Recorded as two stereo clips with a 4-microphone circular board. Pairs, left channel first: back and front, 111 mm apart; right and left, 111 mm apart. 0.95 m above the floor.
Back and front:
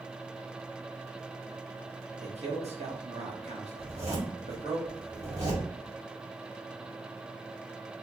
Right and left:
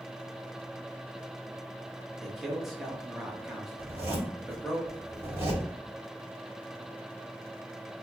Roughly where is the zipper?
Ahead left.